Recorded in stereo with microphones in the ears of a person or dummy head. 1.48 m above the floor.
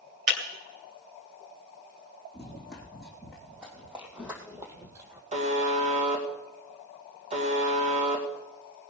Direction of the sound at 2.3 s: Centre (ahead or behind).